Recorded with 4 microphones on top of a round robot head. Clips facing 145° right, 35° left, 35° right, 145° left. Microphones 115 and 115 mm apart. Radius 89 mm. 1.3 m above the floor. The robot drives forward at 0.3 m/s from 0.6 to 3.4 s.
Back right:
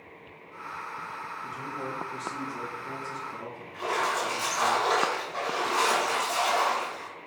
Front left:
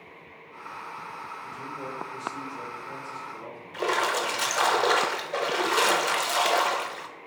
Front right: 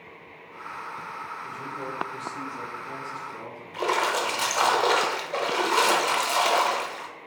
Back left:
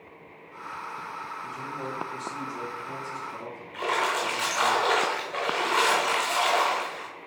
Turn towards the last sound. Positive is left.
turn(degrees=25)